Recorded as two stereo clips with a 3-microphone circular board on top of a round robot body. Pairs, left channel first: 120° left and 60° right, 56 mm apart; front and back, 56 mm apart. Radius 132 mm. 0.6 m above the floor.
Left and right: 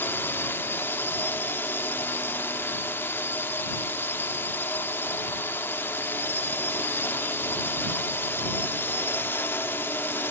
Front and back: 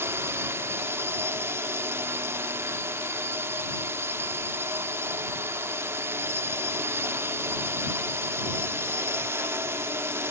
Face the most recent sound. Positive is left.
turn(degrees=155)